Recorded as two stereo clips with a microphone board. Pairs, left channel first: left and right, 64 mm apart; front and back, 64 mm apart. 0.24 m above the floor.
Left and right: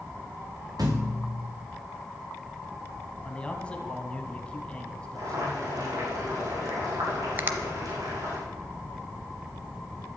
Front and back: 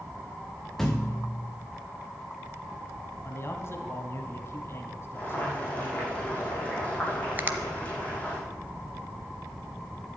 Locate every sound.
0.8 s a thud: 85° right, 2.5 m
3.2 s a man speaking: 25° left, 2 m
5.2 s boiling: 70° right, 6.5 m
7.4 s a finger snap: 135° right, 0.9 m